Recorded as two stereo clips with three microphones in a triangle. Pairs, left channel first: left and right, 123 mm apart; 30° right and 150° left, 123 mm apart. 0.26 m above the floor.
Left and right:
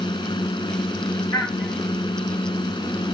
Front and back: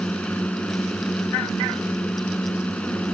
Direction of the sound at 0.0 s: 45° left.